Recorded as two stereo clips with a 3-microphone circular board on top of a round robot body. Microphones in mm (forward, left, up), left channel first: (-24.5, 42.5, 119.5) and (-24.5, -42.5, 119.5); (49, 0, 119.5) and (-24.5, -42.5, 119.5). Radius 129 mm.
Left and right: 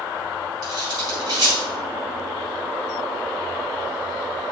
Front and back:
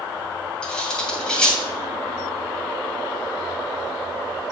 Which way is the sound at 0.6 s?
50° right.